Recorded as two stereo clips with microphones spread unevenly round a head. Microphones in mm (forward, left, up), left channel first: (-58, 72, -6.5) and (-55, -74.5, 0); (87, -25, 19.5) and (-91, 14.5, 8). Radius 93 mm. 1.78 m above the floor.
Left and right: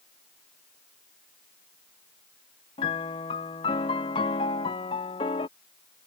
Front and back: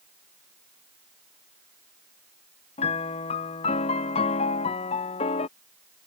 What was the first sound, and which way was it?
A piano, 35° left.